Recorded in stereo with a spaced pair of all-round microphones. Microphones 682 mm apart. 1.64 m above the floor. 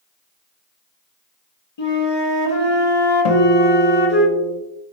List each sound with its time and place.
1.8 s a flute: 40° left (ahead or behind), 0.9 m
3.2 s a guitar: 65° left (ahead or behind), 0.6 m